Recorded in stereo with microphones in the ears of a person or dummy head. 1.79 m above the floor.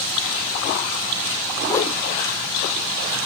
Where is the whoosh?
15° left (ahead or behind), 1.0 m.